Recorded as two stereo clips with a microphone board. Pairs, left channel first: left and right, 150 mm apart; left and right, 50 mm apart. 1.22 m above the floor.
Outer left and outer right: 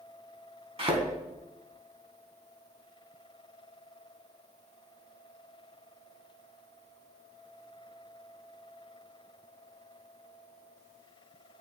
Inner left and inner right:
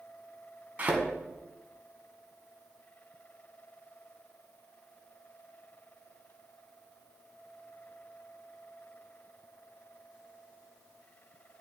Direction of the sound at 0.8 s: 45° right (ahead or behind).